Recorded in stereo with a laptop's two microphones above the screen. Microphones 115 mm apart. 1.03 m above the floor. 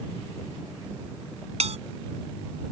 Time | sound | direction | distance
1.6 | a bell | 70° right (ahead or behind) | ?